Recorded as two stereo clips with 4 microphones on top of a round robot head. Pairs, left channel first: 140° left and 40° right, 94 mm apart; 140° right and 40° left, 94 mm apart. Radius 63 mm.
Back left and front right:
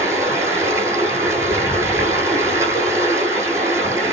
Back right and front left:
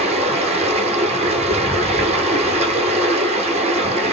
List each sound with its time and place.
0.0 s running water: 25° left, 6.5 m